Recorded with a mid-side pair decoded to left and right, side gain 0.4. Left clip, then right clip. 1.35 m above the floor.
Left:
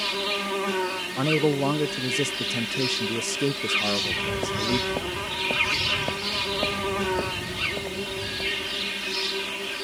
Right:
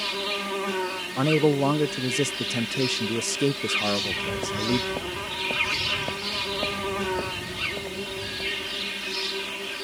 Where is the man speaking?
15° right.